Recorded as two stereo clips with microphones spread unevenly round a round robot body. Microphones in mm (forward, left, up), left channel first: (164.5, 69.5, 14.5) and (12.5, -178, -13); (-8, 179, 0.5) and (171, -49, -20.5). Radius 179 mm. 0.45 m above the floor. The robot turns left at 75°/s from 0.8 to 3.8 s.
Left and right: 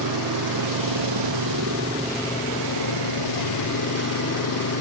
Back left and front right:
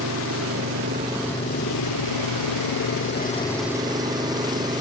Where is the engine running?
110° right; by 4.8 s 25° left.